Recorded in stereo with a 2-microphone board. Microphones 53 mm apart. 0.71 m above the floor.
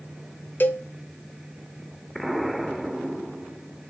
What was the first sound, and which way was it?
A cowbell, 40° left (ahead or behind).